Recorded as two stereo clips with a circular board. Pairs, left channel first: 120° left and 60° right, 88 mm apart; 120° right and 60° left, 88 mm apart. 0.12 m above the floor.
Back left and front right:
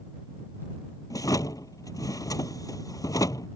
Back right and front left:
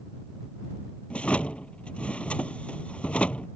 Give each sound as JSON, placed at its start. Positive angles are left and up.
{"t": 1.1, "sound": "a drawer", "azimuth_deg": 165}